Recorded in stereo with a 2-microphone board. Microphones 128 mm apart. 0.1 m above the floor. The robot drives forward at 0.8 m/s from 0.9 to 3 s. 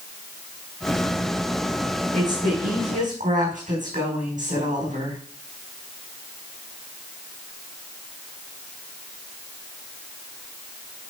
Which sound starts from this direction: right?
A woman speaking, at 2.1 s.